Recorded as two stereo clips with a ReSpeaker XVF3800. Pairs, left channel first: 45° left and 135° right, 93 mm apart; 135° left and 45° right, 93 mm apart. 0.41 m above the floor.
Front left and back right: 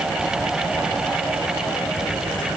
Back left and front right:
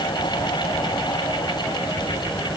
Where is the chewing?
I don't hear chewing.